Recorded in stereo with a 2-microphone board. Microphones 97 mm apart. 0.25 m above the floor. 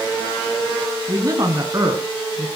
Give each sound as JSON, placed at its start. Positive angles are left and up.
{"t": 1.1, "sound": "a woman speaking", "side_deg": -40, "distance_m": 2.0}